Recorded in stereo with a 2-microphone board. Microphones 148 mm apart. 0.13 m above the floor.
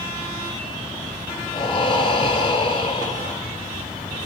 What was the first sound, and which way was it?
Breathing, 30° left (ahead or behind).